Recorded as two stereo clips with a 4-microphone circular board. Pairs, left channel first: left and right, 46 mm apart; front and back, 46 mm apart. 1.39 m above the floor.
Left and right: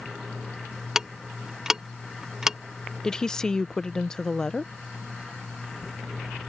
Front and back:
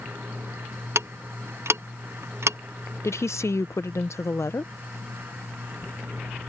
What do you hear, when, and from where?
0.9 s ticking: 165° right
3.0 s a woman speaking: 15° left